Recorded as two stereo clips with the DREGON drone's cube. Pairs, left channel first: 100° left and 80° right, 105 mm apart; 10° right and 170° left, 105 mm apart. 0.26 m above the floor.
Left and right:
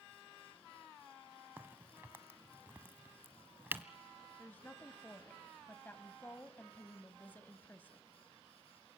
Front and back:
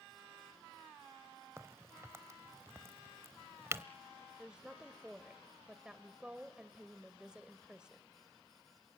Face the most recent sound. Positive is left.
turn(degrees=105)